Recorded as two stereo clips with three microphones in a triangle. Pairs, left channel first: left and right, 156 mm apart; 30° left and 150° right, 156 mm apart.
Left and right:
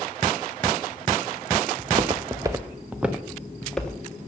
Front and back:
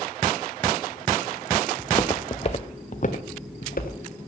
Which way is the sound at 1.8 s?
50° right.